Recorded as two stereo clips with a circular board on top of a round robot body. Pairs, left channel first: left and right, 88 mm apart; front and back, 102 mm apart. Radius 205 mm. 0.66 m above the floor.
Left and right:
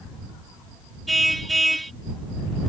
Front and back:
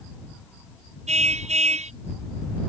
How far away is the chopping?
I don't hear chopping.